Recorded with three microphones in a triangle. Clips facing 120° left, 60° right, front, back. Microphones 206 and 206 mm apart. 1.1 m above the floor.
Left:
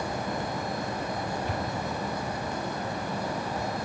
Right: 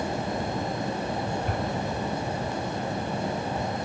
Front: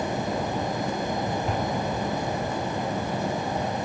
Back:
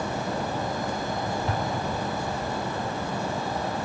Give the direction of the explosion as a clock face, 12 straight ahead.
3 o'clock.